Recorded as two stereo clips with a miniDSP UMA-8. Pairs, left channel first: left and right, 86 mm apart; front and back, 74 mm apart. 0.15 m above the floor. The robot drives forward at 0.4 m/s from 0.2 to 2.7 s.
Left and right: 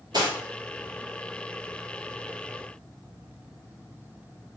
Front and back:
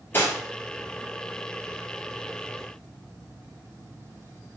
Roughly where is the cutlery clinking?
Ahead right.